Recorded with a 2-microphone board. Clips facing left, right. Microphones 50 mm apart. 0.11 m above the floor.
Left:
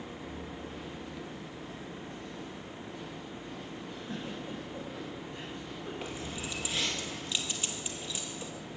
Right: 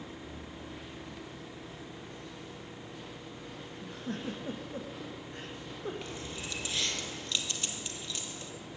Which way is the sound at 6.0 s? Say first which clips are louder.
Left 2 dB; 10° left (ahead or behind).